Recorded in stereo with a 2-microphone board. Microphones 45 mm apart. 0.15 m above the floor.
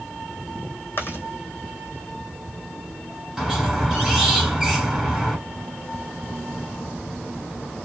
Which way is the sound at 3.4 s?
10° right (ahead or behind).